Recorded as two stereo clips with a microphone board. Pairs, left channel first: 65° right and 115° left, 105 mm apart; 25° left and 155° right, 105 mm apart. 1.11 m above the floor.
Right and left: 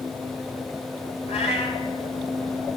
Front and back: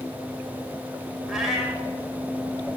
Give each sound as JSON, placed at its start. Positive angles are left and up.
{"t": 1.3, "sound": "a cat meowing", "azimuth_deg": -70, "distance_m": 2.5}